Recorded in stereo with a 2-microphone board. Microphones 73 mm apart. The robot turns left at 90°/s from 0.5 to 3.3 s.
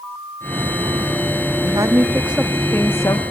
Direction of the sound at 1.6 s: 105° right.